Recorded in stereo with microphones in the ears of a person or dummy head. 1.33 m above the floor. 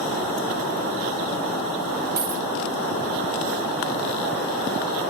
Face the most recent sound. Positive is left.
turn(degrees=-25)  # may be behind; listen again after turning